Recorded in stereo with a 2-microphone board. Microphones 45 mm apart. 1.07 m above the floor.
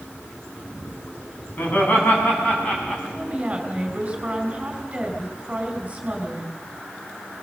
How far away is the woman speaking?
About 4.5 m.